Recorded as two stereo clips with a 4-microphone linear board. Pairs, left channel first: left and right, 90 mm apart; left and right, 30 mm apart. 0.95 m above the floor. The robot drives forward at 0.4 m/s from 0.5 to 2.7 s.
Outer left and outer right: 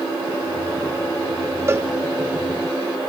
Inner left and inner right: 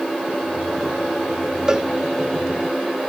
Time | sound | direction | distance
1.7 | a cowbell | 25° right (ahead or behind) | 0.6 m